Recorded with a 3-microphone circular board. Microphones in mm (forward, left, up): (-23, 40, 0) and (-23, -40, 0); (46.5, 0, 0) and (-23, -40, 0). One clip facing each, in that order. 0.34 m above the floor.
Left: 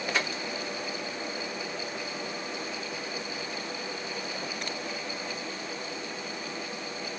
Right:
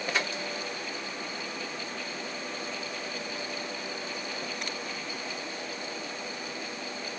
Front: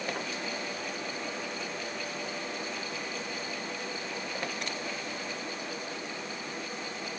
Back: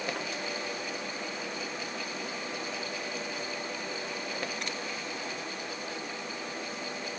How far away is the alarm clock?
No alarm clock in this recording.